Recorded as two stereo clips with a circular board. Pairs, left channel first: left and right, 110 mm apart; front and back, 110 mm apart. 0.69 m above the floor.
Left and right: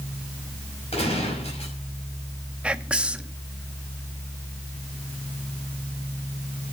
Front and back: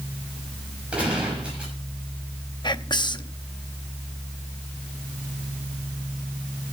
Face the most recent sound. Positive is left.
turn(degrees=-15)